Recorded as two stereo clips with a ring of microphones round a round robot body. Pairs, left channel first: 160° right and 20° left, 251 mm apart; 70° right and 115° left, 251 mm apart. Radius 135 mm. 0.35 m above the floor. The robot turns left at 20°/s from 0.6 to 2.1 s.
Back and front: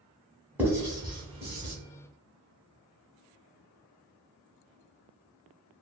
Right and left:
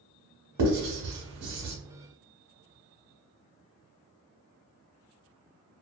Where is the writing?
105° left, 1.1 m; by 1.8 s 85° left, 1.1 m.